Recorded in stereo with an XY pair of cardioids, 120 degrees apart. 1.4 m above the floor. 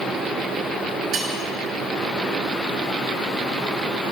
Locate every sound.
1.1 s cutlery clinking: 60° right, 1.7 m